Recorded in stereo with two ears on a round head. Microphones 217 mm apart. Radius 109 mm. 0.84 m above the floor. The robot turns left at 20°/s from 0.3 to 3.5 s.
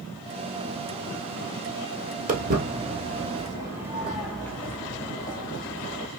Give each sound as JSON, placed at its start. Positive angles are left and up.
{"t": 2.3, "sound": "footsteps", "side_deg": -35, "distance_m": 1.1}